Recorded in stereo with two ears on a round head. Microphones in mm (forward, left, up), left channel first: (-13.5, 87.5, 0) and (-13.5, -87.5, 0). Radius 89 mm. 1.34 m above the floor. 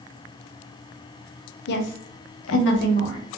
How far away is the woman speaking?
About 0.6 m.